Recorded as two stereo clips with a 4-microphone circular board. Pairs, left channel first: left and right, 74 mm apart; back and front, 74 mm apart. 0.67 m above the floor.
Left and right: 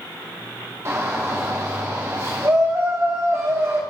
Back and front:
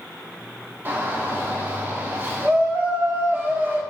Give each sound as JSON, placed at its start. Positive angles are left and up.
{"t": 0.8, "sound": "a shout", "azimuth_deg": -50, "distance_m": 1.8}